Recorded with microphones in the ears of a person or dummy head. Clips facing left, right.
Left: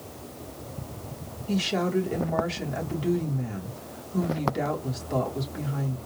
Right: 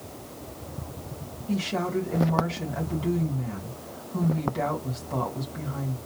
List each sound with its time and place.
1.5 s a woman speaking: 20° left (ahead or behind), 2 m